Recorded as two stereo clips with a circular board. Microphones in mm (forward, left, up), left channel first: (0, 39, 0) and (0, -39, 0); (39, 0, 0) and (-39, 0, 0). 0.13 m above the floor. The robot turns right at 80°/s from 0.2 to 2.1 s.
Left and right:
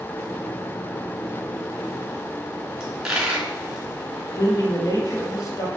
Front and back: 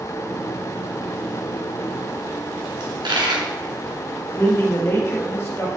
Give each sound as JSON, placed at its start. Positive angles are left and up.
{"t": 2.8, "sound": "a dropped coin", "azimuth_deg": -175, "distance_m": 3.0}
{"t": 4.4, "sound": "a man speaking", "azimuth_deg": 50, "distance_m": 2.5}